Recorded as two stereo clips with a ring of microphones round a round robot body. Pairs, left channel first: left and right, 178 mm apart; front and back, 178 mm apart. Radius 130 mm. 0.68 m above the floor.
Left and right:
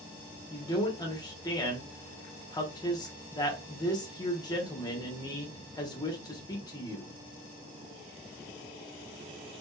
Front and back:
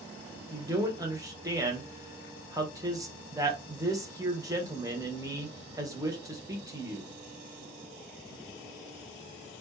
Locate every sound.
0.5 s a man speaking: 130° left, 1.0 m